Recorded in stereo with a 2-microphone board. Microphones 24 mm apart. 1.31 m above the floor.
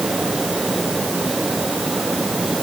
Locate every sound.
Only background noise.